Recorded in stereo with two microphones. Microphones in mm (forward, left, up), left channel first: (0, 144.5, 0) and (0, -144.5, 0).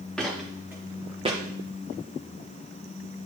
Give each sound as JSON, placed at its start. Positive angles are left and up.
{"t": 0.2, "sound": "footsteps", "side_deg": 0, "distance_m": 2.5}